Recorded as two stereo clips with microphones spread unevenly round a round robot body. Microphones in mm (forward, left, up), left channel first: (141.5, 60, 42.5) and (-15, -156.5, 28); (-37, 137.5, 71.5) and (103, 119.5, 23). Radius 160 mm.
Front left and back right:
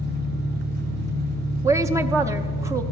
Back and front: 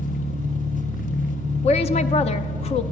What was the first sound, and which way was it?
An engine running, 135° left.